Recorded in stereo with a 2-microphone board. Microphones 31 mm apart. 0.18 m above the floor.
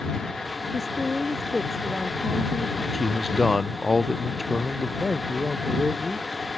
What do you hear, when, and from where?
0.7 s a woman speaking: 10° right (ahead or behind); by 2.8 s 10° left (ahead or behind)
2.9 s a man speaking: 5° right (ahead or behind)
5.0 s a man speaking: 40° right (ahead or behind)